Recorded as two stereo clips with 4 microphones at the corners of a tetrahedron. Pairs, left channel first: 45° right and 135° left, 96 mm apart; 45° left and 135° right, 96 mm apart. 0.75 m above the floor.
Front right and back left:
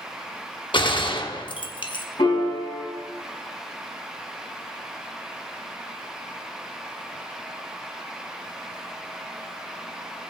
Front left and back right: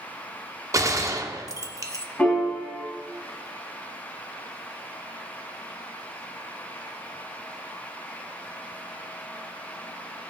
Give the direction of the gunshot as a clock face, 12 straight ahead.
3 o'clock.